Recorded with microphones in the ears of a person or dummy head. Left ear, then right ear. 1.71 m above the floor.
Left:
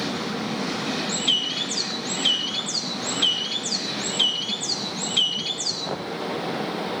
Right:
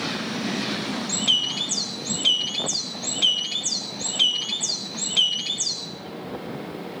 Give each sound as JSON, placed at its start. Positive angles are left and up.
{"t": 1.1, "sound": "a bird", "side_deg": -5, "distance_m": 1.1}